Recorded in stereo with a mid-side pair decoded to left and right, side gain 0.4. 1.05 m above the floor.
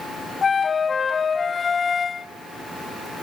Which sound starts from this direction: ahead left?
A flute, at 0.4 s.